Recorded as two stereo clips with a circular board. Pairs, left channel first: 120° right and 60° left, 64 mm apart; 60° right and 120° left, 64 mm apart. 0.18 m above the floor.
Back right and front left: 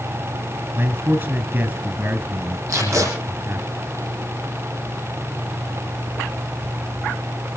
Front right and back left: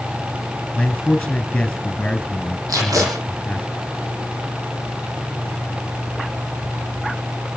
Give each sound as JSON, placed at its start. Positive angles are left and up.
{"t": 0.8, "sound": "a man speaking", "azimuth_deg": 20, "distance_m": 2.5}
{"t": 2.7, "sound": "tape being pulled", "azimuth_deg": 100, "distance_m": 8.0}